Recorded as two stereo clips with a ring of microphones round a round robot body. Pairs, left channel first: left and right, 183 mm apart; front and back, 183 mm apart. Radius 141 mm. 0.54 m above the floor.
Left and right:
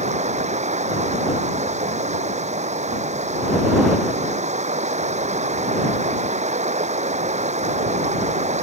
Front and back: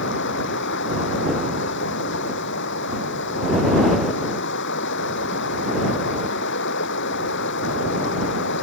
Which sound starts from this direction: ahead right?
Running water, at 0.0 s.